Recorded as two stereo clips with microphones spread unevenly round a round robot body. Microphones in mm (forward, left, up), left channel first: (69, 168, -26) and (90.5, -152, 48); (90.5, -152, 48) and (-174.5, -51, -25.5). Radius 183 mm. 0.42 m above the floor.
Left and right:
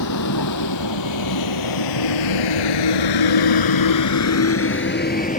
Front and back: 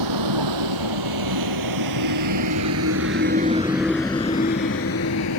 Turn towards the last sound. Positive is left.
turn(degrees=25)